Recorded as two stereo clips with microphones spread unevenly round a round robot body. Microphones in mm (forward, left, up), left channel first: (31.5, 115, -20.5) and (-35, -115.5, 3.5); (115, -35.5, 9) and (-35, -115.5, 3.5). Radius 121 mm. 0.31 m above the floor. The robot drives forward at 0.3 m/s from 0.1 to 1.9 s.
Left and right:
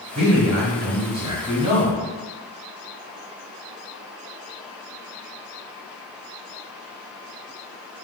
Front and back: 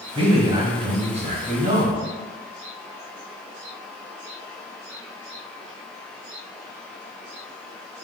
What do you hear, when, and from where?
0.1 s a man speaking: 165° right, 1.3 m; by 2.0 s 170° right, 1.6 m